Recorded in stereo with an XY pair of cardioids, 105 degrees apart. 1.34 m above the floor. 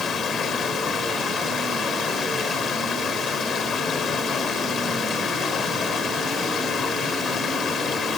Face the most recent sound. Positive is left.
turn(degrees=55)